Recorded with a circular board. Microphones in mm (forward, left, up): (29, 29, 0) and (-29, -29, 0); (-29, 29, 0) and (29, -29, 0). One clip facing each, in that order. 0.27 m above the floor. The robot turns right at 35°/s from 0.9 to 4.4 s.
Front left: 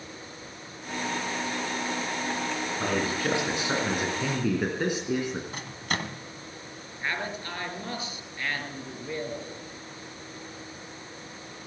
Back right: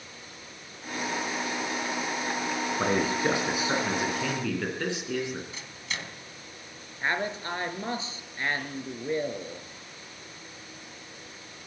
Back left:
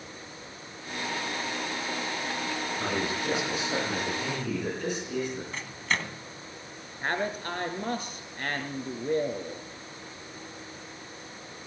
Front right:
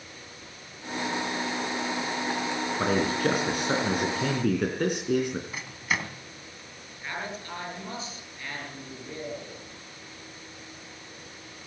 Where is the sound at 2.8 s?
85° right, 3.5 m; by 5.4 s 25° right, 3.5 m.